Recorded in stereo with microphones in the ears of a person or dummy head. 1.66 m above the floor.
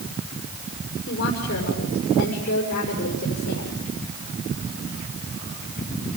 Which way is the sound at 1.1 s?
40° left (ahead or behind).